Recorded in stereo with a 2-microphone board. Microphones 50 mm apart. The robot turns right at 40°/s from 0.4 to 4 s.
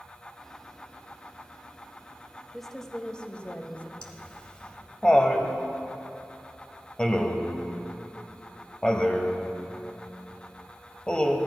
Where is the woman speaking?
5° left, 1.1 m; by 3.9 s 60° left, 1.1 m.